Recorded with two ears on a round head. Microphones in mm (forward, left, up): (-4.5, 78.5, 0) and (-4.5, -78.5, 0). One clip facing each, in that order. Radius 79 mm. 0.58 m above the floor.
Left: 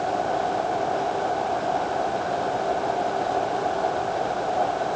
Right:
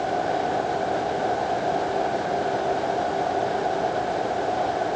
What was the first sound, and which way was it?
Only background noise.